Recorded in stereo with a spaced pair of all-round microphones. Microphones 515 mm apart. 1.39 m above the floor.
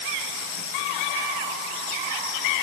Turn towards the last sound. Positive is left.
No sound to turn to.